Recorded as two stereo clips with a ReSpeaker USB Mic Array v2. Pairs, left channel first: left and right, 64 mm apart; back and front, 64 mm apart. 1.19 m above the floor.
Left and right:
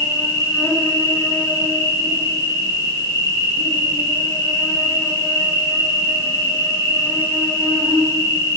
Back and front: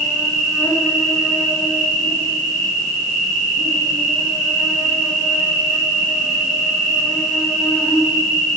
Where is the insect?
85° left, 3.5 m.